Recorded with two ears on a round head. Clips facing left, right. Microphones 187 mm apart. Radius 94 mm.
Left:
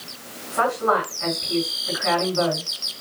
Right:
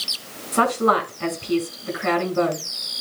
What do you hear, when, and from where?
0.5 s a woman speaking: 50° right (ahead or behind), 5 m